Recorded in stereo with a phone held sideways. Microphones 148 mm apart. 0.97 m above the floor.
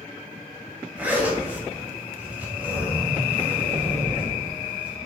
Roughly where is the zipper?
Centre.